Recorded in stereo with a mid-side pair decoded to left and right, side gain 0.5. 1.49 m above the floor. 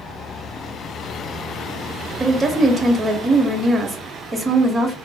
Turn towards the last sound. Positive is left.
turn(degrees=-35)